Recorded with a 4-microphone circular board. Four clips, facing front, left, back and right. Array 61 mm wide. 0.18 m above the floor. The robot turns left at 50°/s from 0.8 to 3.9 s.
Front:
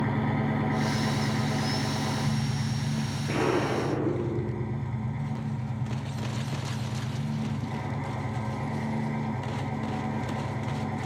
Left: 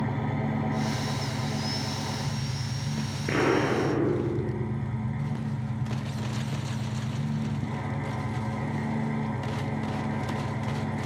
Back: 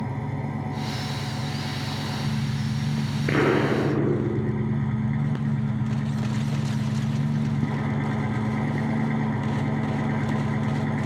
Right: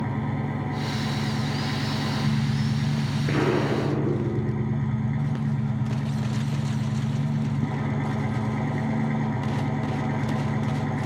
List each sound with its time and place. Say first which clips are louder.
0.0 s an engine running: right 1 dB, front 3 dB; straight ahead, 1.8 m; by 11.1 s 155° right, 1.8 m
3.3 s an explosion: even, back 5 dB; 175° left, 2.5 m; by 4.7 s 145° left, 2.5 m